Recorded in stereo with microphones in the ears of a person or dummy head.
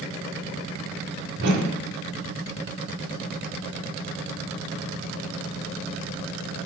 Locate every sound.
1.4 s a whoosh: 80° right, 1.9 m